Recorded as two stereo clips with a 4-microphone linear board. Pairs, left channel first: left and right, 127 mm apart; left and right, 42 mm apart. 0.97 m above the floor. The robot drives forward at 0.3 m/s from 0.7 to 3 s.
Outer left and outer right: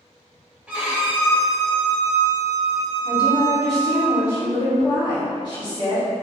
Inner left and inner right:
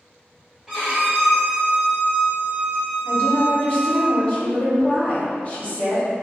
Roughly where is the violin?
Centre.